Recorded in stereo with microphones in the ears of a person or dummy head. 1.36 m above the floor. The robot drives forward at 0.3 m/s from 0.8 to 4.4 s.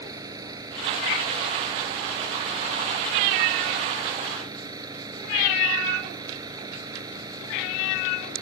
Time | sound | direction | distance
0.0 | an engine running | 20° right (ahead or behind) | ?